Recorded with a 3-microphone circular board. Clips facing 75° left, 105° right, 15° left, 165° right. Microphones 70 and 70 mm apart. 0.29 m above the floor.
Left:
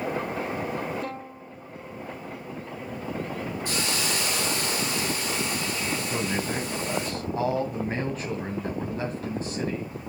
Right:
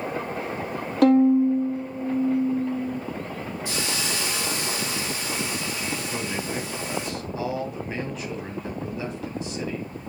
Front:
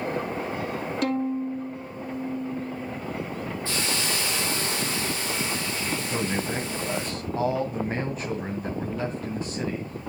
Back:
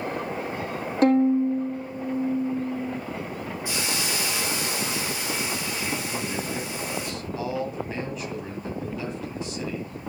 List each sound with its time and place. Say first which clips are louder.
1.0 s a violin: right 20 dB, back 9 dB; 110° right, 2.5 m
3.6 s a hiss: even, even; 120° left, 5.5 m
6.1 s a man speaking: left 1 dB, front 2 dB; 45° left, 2.0 m